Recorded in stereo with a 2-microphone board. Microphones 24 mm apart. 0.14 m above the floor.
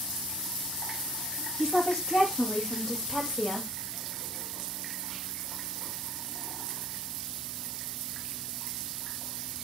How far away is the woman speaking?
About 6 m.